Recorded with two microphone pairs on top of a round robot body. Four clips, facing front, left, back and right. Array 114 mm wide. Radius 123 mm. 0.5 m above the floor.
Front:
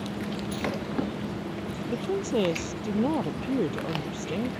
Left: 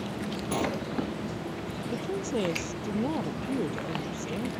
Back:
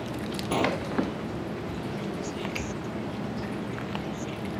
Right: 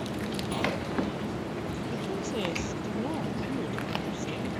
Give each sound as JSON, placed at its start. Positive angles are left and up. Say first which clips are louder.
{"t": 0.5, "sound": "a sliding door", "louder": "left 2 dB, back 9 dB", "azimuth_deg": 160}
{"t": 1.9, "sound": "a woman speaking", "louder": "left 4 dB, front 6 dB", "azimuth_deg": 10}